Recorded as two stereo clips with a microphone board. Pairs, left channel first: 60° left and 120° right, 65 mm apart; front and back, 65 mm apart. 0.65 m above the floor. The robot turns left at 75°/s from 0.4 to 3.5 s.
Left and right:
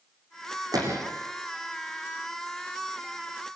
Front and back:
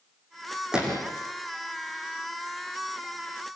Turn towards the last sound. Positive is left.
turn(degrees=50)